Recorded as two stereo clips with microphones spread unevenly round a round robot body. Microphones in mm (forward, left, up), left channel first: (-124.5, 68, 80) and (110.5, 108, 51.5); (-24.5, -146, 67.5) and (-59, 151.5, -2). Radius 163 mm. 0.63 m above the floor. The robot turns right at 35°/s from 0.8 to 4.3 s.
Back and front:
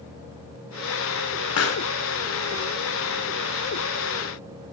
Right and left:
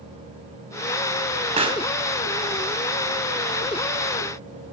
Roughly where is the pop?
Behind.